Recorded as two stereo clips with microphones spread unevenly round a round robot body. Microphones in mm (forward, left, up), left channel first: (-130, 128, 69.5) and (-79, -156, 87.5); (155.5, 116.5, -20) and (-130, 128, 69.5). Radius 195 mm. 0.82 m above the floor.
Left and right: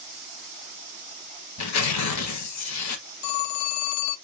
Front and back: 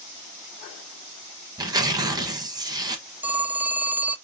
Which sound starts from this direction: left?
A phone ringing, at 3.2 s.